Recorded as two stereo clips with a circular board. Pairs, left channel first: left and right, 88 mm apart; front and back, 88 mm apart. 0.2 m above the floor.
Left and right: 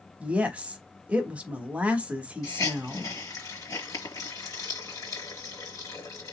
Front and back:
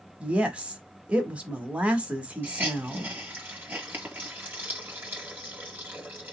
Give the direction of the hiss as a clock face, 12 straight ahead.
8 o'clock.